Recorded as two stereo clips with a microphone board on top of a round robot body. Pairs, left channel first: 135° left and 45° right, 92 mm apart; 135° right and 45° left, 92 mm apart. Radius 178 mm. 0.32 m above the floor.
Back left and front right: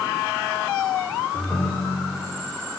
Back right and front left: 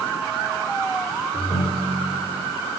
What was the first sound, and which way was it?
A ringtone, 160° right.